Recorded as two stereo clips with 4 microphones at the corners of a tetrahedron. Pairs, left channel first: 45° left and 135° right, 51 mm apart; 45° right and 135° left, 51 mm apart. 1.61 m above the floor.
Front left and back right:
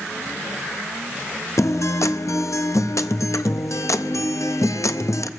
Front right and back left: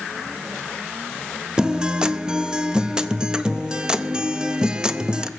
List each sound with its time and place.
1.6 s a guitar: 60° left, 0.6 m